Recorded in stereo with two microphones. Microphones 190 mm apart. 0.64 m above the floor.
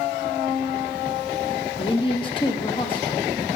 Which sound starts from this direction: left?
A woman speaking, at 1.8 s.